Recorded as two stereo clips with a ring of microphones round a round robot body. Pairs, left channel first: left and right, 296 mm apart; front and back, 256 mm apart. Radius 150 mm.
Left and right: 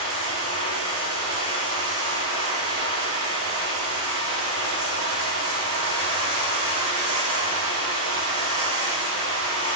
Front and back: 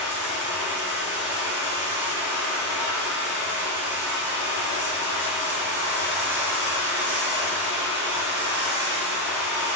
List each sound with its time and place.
0.0 s running water: 130° right, 3 m